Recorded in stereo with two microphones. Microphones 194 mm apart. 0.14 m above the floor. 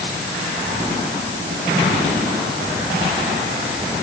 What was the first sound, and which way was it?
Only background noise.